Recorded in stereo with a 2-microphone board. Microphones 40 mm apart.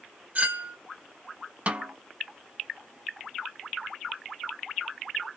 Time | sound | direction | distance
0.3 | a clink | 40° right (ahead or behind) | 1.2 m
1.7 | a snare drum | 40° right (ahead or behind) | 1.0 m